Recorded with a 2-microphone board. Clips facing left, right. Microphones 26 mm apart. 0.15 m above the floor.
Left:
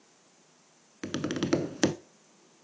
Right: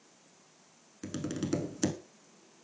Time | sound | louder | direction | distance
1.0 | tapping | left 5 dB | 45° left (ahead or behind) | 0.7 m